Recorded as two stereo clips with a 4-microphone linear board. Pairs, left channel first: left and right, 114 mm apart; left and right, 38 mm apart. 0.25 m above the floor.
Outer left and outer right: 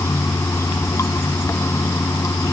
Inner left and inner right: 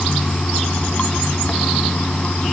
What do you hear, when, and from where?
0.0 s running water: 25° left (ahead or behind), 0.8 m